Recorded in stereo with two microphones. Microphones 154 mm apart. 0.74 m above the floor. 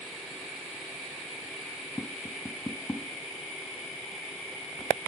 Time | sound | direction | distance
2.0 | tapping | 10° left (ahead or behind) | 0.7 m